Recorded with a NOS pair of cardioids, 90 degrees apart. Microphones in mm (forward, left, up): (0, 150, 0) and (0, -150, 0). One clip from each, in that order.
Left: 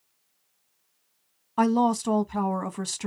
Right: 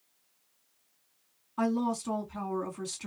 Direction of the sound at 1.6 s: 55° left.